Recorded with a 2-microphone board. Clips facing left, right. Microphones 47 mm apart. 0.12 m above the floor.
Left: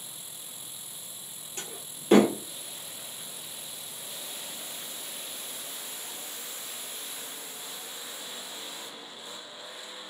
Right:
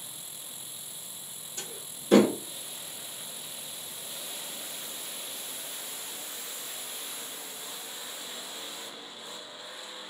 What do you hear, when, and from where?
1.6 s a door slam: 70° left (ahead or behind), 2.5 m